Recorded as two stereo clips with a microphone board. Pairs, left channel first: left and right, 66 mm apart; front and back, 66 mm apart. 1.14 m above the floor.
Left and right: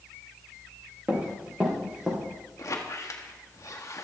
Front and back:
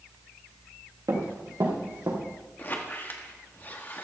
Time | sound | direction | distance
1.1 | running footsteps | 160° right | 6 m
2.6 | a squeak | 55° left | 1.6 m